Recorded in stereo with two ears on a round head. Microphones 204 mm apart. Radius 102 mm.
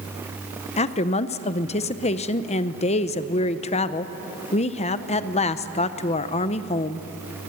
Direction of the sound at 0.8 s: 30° left (ahead or behind).